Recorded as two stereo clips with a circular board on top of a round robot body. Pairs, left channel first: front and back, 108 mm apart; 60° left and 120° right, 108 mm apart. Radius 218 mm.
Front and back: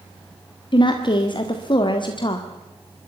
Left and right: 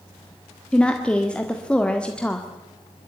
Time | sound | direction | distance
0.7 | a woman speaking | 15° right | 1.9 m